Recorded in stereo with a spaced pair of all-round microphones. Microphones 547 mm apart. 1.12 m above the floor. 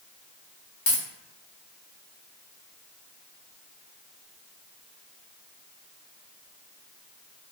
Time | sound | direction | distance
0.9 | a dropped coin | 55° left (ahead or behind) | 1.0 m